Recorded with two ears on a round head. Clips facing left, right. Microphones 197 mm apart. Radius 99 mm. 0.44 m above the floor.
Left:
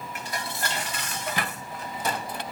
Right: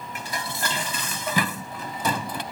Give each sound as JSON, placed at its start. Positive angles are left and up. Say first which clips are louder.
{"t": 0.1, "sound": "dishes clattering", "louder": "right 2 dB", "side_deg": -75}